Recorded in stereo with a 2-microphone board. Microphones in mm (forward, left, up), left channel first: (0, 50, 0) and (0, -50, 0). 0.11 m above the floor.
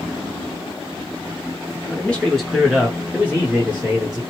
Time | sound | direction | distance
1.9 | a man speaking | 15° left (ahead or behind) | 1.4 m